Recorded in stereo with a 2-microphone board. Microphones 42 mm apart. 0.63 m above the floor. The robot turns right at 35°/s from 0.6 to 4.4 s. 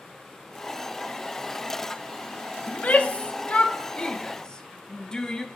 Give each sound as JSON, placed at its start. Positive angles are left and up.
{"t": 2.7, "sound": "a shout", "side_deg": 30, "distance_m": 0.6}